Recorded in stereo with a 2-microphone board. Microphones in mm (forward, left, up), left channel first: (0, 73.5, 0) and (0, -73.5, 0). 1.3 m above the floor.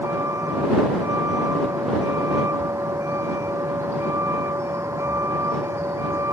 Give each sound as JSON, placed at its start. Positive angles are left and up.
{"t": 0.0, "sound": "a vehicle", "side_deg": -20}